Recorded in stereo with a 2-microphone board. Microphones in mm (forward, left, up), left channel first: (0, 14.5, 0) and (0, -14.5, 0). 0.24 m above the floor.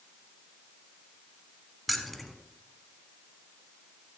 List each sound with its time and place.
1.9 s keys jangling: 5° left (ahead or behind), 1.2 m